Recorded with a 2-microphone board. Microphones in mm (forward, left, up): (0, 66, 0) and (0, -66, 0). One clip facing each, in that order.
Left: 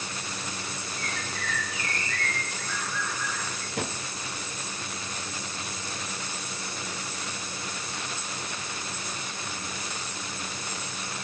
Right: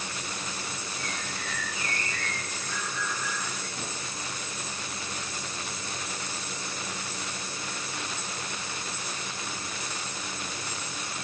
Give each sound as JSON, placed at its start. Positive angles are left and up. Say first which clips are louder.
{"t": 1.0, "sound": "a bird", "louder": "left 2 dB", "side_deg": 75, "distance_m": 6.0}
{"t": 3.8, "sound": "a drawer", "louder": "left 5 dB", "side_deg": 75, "distance_m": 1.5}